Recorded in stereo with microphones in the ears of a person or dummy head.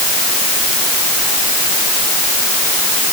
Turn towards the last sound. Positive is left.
No sound to turn to.